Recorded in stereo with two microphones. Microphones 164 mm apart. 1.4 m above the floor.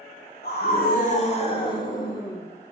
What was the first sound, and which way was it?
A scream, 65° left (ahead or behind).